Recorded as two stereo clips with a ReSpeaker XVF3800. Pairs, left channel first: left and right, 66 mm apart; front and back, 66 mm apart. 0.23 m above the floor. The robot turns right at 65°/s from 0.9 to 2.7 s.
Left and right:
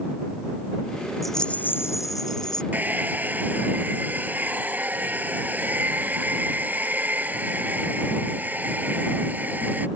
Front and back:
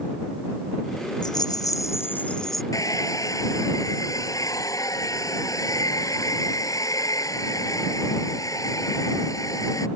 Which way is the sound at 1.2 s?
Straight ahead.